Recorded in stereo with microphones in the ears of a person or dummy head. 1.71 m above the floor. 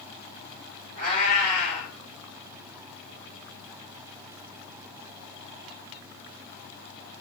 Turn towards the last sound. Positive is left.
turn(degrees=-55)  # may be behind; listen again after turning